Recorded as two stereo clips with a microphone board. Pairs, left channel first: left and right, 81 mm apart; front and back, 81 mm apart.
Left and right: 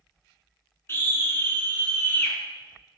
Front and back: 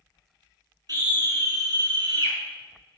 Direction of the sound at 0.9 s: 150° left.